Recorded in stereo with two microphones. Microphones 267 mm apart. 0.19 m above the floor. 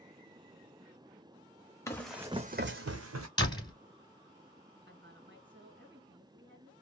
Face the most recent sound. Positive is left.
turn(degrees=-45)  # may be behind; listen again after turning